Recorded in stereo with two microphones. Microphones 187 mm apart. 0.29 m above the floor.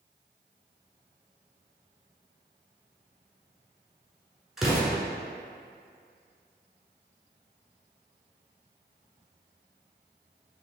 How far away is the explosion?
About 1.3 m.